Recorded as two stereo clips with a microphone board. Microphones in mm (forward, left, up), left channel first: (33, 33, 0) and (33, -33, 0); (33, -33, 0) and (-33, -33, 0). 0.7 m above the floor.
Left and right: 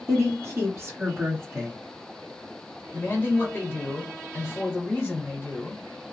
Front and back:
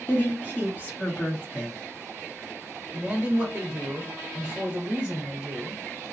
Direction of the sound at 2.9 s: 115° left.